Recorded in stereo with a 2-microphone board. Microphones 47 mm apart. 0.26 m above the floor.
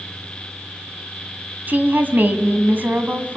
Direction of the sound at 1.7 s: 45° right (ahead or behind).